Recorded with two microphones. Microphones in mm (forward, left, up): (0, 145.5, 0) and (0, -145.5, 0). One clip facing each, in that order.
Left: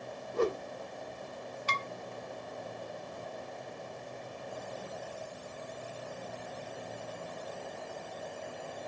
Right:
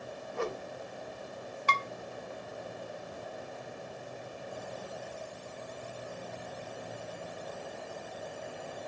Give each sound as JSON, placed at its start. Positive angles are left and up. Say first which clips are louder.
{"t": 0.3, "sound": "a whoosh", "louder": "left 6 dB", "side_deg": 45, "distance_m": 1.2}
{"t": 1.7, "sound": "dishes clattering", "louder": "right 6 dB", "side_deg": -65, "distance_m": 1.4}